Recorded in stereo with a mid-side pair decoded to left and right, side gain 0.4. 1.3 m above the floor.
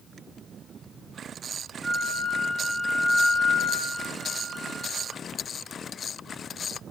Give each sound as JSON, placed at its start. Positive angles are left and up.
{"t": 1.8, "sound": "a flute", "azimuth_deg": -15, "distance_m": 1.1}